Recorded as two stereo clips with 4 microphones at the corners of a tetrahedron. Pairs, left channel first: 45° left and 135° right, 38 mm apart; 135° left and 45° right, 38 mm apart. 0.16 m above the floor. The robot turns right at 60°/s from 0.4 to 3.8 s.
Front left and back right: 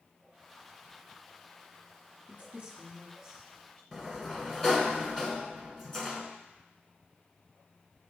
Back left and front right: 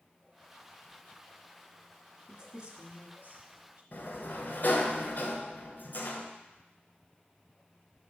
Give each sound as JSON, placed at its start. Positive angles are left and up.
{"t": 2.3, "sound": "a woman speaking", "azimuth_deg": -110, "distance_m": 2.0}
{"t": 3.9, "sound": "a sliding door", "azimuth_deg": 120, "distance_m": 1.0}